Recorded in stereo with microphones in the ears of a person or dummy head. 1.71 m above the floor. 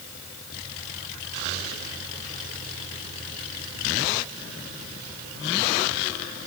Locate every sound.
Only background noise.